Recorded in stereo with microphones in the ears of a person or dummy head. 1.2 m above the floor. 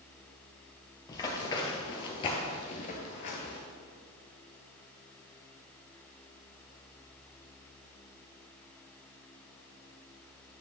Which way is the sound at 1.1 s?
25° left (ahead or behind).